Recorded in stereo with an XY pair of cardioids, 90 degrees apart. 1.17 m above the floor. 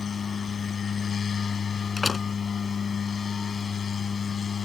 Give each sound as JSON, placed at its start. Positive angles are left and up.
{"t": 0.0, "sound": "a machine running", "azimuth_deg": 50}
{"t": 2.0, "sound": "a door slam", "azimuth_deg": 40}